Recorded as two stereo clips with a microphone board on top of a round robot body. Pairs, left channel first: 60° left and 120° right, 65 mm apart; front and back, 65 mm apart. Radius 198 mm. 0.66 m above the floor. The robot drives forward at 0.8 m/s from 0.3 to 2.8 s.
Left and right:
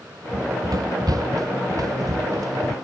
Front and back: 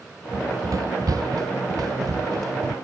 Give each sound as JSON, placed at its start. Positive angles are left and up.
{"t": 0.3, "sound": "running footsteps", "azimuth_deg": -145}